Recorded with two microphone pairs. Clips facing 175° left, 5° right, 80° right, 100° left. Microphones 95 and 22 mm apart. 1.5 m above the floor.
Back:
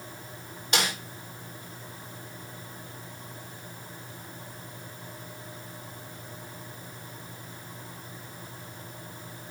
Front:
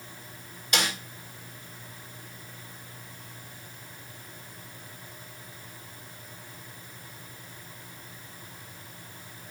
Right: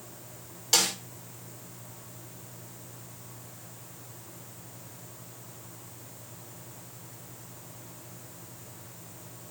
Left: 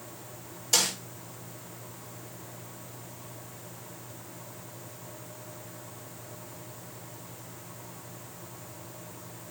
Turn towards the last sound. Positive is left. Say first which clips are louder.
# back 1 dB, right 1 dB
turn(degrees=-125)